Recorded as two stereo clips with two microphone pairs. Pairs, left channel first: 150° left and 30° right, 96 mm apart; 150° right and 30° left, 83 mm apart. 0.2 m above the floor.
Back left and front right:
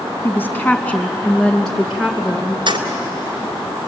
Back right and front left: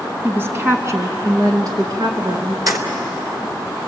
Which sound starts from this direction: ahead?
Keys jangling, at 2.7 s.